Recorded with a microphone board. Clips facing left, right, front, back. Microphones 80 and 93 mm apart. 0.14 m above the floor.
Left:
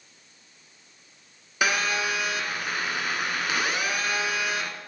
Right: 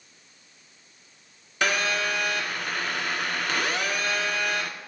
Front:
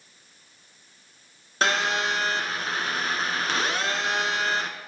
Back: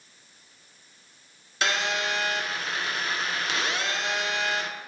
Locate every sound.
1.6 s a phone buzzing: 15° left, 1.7 m